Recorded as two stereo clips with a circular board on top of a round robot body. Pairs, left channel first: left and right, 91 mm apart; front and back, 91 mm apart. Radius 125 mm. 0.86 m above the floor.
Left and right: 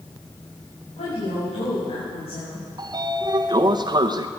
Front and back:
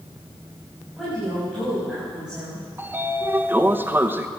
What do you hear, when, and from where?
1.0 s a woman speaking: 95° left, 7 m; by 2.6 s 100° left, 7 m
2.8 s a sliding door: 115° right, 1.0 m